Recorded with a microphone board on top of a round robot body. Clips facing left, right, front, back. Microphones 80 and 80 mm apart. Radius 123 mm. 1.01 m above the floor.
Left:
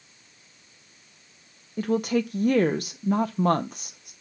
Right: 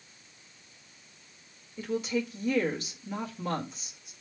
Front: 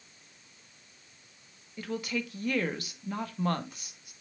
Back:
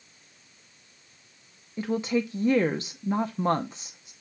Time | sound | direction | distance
1.8 | a woman speaking | 115° left | 0.7 m